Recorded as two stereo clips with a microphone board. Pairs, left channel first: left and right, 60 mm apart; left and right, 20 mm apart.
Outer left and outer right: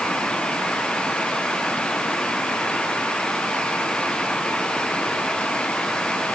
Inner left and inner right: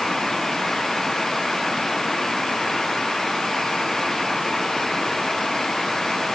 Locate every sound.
Only background noise.